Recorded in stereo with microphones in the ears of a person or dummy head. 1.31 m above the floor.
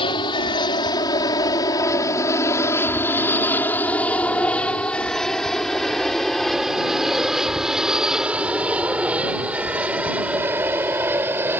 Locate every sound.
0.0 s an aircraft: 30° left (ahead or behind); by 11.6 s 10° right (ahead or behind)